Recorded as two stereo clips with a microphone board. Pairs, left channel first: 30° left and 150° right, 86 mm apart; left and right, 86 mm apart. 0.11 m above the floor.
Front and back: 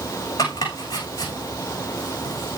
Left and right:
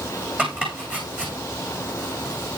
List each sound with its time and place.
0.4 s chopping: 20° right, 7 m